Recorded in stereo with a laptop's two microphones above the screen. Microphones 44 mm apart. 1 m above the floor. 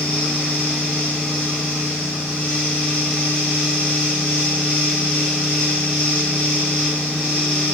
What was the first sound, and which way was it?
A fan, 20° left (ahead or behind).